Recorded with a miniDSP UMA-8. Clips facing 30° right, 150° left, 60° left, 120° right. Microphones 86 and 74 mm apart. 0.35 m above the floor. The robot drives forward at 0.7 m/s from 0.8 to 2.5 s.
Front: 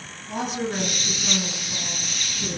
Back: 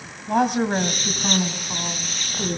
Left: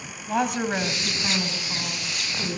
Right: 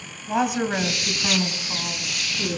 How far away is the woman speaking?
About 1.7 m.